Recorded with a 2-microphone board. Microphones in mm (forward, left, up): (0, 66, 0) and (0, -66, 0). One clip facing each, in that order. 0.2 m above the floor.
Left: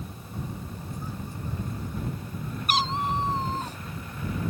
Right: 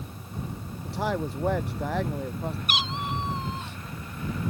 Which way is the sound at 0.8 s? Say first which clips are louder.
Right 13 dB; 80° right.